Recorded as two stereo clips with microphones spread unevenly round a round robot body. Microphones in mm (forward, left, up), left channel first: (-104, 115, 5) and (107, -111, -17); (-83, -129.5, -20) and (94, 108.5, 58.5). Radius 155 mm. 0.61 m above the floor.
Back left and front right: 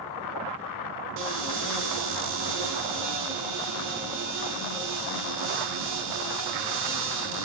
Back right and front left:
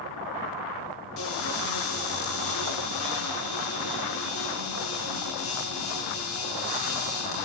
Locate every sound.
1.2 s a cupboard door: 100° right, 4 m